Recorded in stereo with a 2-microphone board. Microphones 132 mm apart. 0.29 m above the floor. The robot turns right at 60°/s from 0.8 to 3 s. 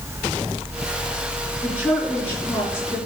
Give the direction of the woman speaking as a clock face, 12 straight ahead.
1 o'clock.